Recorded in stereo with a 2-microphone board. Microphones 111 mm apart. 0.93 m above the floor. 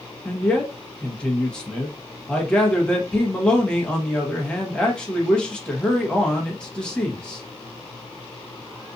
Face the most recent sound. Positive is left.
turn(degrees=10)  # may be behind; listen again after turning